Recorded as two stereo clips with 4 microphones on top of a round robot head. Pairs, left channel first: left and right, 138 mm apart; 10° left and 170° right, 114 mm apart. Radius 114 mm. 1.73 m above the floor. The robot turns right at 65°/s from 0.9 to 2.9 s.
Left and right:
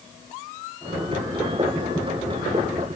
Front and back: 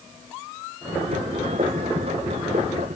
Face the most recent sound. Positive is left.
No sound to turn to.